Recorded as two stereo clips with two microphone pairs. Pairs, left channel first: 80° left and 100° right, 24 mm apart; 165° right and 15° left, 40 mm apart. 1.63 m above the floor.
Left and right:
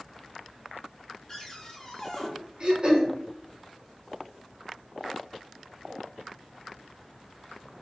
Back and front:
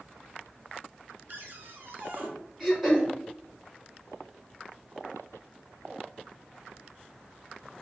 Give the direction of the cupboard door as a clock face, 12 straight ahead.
12 o'clock.